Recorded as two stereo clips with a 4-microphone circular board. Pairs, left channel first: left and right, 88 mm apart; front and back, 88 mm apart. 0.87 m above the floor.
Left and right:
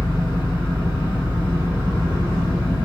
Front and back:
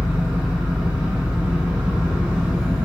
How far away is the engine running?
About 0.9 m.